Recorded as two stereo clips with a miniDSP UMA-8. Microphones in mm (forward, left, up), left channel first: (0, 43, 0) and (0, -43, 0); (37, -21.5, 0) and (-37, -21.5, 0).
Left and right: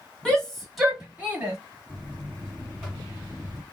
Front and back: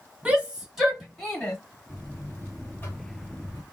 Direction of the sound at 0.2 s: 150° left.